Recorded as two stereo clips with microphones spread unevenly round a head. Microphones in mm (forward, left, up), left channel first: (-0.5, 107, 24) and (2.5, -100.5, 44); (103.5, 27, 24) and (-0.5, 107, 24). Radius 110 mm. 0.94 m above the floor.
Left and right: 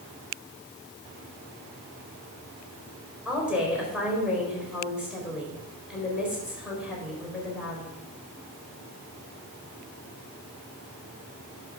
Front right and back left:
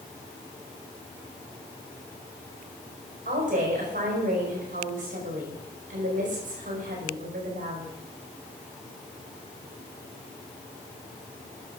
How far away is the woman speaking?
About 4.5 m.